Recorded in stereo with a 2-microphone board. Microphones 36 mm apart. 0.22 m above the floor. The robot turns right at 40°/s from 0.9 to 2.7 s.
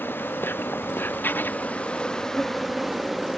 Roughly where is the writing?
Left.